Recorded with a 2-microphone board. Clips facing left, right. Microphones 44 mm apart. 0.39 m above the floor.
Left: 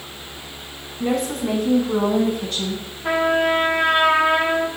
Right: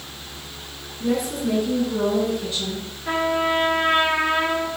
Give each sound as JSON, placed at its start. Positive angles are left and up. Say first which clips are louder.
{"t": 1.0, "sound": "a woman speaking", "louder": "left 1 dB", "side_deg": 65, "distance_m": 3.5}
{"t": 3.0, "sound": "a trumpet", "louder": "left 3 dB", "side_deg": 70, "distance_m": 3.0}